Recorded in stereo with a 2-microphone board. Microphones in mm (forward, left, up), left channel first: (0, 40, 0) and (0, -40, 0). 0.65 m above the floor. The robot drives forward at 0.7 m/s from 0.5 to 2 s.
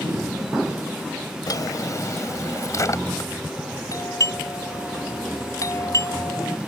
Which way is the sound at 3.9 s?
45° left (ahead or behind).